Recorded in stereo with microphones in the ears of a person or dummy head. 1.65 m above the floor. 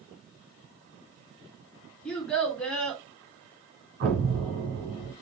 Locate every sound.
2.0 s a child speaking: 5° left (ahead or behind), 1.8 m
4.0 s an explosion: 55° right (ahead or behind), 2.5 m